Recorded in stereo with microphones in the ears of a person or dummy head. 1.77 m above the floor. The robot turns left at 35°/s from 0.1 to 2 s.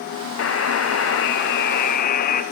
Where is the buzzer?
110° left, 0.6 m; by 2.4 s 55° left, 0.6 m.